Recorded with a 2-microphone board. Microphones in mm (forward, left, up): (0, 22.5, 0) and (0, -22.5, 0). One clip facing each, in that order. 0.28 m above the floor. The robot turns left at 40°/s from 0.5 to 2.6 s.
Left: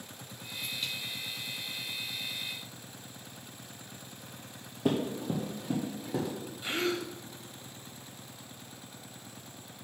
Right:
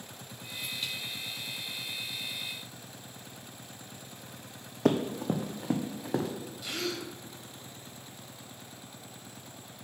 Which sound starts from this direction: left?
A gasp, at 6.6 s.